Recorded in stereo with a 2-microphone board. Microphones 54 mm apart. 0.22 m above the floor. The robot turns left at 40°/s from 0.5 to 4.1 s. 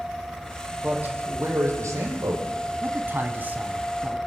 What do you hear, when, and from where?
0.8 s a man speaking: 25° right, 6.5 m; by 2.5 s 95° right, 6.5 m
2.8 s a man speaking: 100° right, 1.5 m; by 4.2 s 155° right, 1.5 m